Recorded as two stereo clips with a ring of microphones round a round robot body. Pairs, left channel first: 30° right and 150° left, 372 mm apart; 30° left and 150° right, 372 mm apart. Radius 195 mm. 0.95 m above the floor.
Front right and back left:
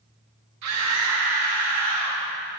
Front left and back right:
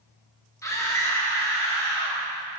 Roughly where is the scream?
Left.